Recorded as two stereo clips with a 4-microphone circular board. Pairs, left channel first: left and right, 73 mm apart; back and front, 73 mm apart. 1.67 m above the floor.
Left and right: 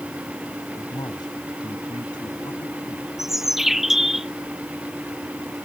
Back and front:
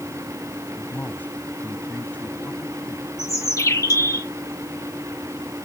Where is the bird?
175° right.